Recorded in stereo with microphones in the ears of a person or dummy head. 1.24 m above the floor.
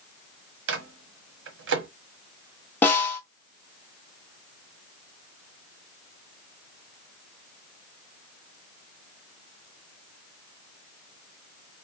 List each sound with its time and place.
0.7 s a microwave: 55° right (ahead or behind), 0.5 m
2.8 s a snare drum: 10° left (ahead or behind), 0.9 m